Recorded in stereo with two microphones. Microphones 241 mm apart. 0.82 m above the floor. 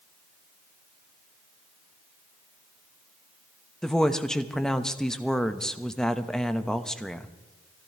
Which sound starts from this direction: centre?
A woman speaking, at 3.8 s.